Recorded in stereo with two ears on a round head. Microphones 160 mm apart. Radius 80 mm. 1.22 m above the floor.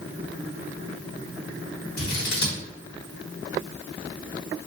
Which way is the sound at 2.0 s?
60° left (ahead or behind).